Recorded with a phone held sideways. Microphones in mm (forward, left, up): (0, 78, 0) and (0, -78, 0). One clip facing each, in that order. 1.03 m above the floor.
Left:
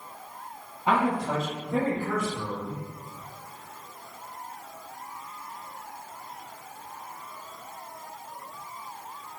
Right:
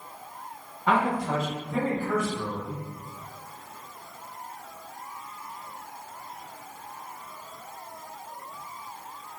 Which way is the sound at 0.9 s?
15° left (ahead or behind).